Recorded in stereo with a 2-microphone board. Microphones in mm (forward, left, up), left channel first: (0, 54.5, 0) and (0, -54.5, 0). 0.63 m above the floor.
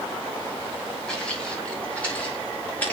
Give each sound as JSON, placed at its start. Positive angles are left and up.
{"t": 1.1, "sound": "footsteps", "side_deg": 5, "distance_m": 7.0}